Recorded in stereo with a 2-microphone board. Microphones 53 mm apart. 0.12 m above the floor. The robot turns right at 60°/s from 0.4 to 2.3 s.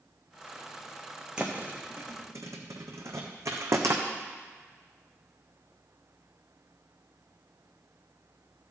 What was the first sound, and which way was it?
A thud, 15° right (ahead or behind).